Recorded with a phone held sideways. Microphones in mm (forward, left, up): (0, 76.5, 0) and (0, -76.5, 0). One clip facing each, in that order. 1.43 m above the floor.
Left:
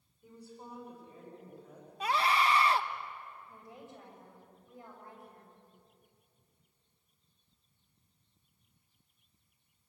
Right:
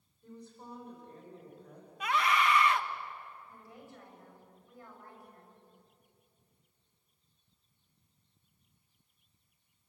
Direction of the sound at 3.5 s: 20° left (ahead or behind).